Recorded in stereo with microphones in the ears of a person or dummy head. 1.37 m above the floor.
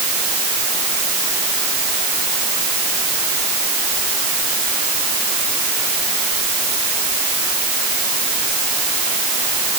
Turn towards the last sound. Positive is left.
No sound to turn to.